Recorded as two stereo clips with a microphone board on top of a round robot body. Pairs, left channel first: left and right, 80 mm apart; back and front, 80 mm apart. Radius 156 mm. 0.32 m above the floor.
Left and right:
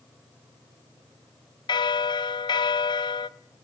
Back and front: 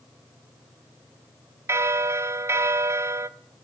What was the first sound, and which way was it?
A bell, 60° left.